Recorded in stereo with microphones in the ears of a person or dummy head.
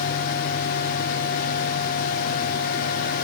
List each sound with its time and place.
0.0 s a fan: 50° left (ahead or behind), 1.0 m